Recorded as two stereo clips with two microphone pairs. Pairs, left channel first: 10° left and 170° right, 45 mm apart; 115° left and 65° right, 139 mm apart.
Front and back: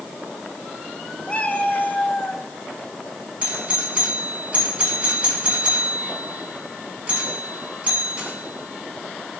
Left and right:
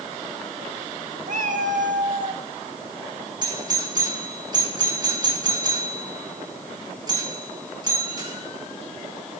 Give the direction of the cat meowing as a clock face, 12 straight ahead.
2 o'clock.